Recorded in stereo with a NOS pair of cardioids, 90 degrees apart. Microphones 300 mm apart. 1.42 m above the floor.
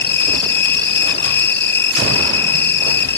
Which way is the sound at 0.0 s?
35° left.